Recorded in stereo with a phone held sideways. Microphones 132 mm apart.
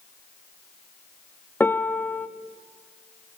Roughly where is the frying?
I don't hear frying.